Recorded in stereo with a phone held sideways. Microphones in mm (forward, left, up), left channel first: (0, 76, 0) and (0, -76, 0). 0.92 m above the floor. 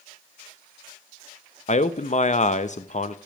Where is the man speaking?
55° left (ahead or behind), 0.6 m.